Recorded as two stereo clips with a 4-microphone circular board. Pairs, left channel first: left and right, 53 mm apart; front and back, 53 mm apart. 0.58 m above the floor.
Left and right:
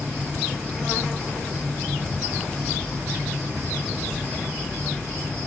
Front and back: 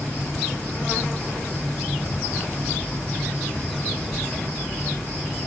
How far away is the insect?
About 1.7 m.